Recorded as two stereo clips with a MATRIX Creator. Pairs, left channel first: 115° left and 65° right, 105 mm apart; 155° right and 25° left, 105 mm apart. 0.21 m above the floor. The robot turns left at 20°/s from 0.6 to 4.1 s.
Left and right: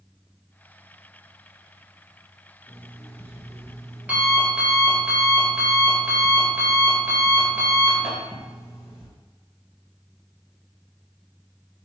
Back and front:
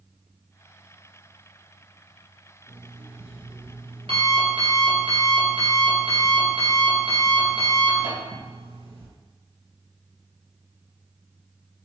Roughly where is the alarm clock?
Ahead left.